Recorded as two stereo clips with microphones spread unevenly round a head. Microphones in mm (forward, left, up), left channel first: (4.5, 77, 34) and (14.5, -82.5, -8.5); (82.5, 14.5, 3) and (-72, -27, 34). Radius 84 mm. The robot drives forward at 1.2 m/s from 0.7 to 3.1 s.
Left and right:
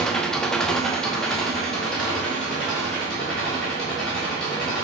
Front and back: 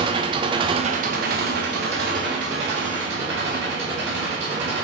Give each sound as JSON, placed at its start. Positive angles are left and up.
{"t": 0.0, "sound": "an engine running", "azimuth_deg": 160, "distance_m": 0.8}